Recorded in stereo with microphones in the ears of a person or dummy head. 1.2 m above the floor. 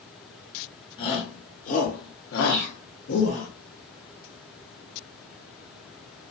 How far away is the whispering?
About 0.6 m.